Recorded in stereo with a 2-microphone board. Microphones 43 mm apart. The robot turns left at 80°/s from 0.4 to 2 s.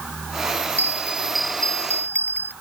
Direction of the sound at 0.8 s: 130° right.